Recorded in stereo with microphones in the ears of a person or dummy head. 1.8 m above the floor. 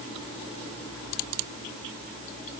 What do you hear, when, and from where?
Only background noise.